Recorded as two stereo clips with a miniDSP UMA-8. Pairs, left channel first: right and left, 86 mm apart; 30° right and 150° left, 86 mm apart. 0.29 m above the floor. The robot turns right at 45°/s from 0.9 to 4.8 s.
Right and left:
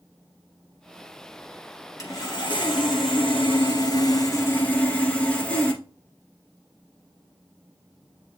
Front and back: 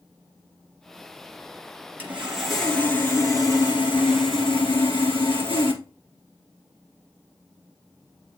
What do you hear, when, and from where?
2.0 s sawing: 140° right, 2.5 m; by 5.8 s 15° right, 2.5 m